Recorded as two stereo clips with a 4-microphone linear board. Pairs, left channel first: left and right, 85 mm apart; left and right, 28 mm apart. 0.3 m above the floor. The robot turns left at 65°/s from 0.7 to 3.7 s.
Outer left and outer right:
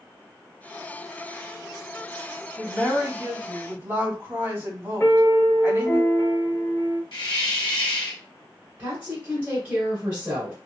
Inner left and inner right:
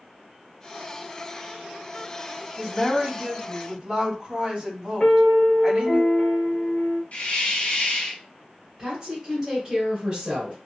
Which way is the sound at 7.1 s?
60° left (ahead or behind).